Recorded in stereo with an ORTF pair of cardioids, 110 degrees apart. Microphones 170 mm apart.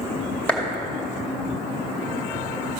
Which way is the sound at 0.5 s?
10° left.